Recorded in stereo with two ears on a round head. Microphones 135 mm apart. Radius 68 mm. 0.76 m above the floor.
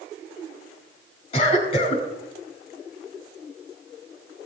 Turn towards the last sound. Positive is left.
turn(degrees=40)  # may be behind; listen again after turning